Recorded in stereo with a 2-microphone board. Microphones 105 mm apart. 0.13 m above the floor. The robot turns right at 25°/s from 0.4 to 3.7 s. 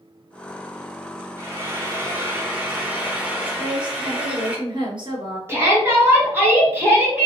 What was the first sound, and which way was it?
Frying, 20° right (ahead or behind).